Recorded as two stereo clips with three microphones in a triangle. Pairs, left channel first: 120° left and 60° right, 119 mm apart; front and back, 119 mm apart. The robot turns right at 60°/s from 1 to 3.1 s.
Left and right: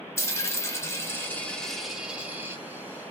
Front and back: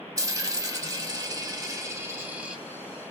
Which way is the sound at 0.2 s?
160° left.